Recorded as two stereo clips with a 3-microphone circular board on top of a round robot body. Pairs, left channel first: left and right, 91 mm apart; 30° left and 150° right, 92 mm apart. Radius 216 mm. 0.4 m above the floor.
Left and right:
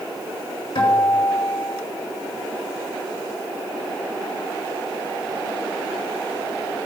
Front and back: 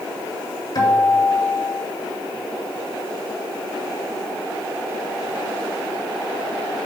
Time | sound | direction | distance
0.8 | a guitar | 70° left | 3.5 m